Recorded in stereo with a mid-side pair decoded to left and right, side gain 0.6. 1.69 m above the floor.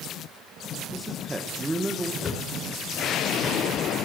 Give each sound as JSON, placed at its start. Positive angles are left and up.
{"t": 0.9, "sound": "a man speaking", "azimuth_deg": -10, "distance_m": 1.4}
{"t": 2.2, "sound": "a thud", "azimuth_deg": 40, "distance_m": 6.0}